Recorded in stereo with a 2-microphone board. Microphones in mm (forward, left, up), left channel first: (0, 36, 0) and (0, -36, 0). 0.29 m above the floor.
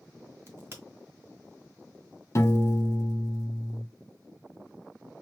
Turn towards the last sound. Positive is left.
turn(degrees=40)  # may be behind; listen again after turning